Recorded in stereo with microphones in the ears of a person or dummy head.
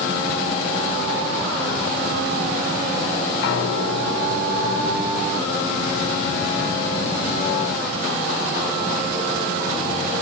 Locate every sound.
3.4 s a piano: 80° left, 5 m